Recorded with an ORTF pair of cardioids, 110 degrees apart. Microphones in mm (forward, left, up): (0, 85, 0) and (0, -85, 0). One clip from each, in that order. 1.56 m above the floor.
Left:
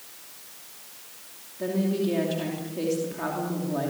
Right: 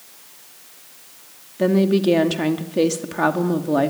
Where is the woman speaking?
70° right, 2.5 m.